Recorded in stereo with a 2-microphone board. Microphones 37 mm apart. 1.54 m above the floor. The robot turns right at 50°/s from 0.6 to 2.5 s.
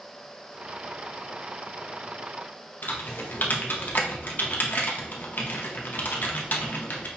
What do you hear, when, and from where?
2.8 s typing on a keyboard: 55° left (ahead or behind), 0.7 m